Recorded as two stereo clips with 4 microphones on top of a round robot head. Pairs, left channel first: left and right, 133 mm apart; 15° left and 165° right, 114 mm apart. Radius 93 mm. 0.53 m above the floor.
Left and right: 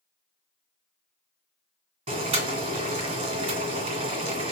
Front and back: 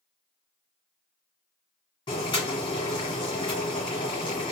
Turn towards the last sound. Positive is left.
turn(degrees=-50)